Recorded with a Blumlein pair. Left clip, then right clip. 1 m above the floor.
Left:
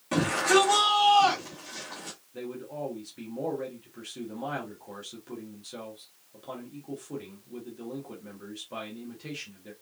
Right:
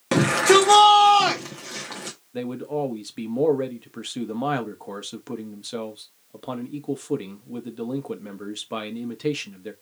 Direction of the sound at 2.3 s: 60° right.